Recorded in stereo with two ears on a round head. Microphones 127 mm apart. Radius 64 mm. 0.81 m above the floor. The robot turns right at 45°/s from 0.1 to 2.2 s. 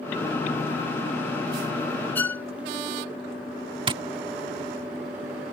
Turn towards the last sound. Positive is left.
turn(degrees=-35)  # may be behind; listen again after turning